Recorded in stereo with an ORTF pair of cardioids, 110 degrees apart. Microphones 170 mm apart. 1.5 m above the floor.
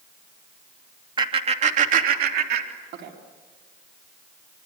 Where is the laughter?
25° right, 2.5 m; by 3.1 s 80° right, 3.5 m.